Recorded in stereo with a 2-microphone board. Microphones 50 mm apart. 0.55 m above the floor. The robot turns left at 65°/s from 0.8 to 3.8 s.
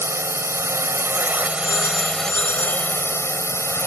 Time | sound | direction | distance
0.0 | a drone | 95° right | ?
1.6 | a phone ringing | 115° left | ?